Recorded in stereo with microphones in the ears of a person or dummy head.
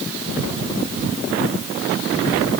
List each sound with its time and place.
Only background noise.